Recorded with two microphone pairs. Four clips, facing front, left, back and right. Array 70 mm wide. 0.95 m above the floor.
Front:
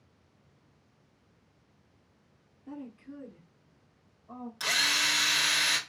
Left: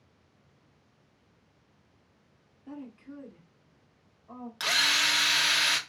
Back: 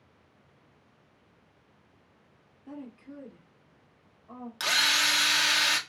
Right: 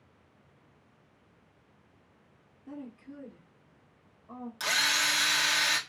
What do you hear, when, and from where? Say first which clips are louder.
2.7 s a woman speaking: even, even; 125° left, 1.5 m; by 4.5 s 130° left, 3.5 m
4.6 s a drill: left 2 dB, back 3 dB; 135° left, 1.4 m